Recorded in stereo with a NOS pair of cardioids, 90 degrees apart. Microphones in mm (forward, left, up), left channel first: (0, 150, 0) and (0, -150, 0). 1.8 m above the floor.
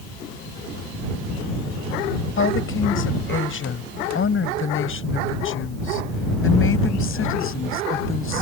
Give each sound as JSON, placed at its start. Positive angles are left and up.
{"t": 2.4, "sound": "a woman speaking", "azimuth_deg": 45}